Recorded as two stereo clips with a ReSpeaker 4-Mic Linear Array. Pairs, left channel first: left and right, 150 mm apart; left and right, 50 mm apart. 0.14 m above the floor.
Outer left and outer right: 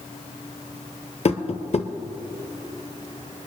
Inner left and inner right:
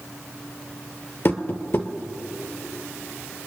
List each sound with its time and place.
1.2 s tapping: 45° left (ahead or behind), 0.7 m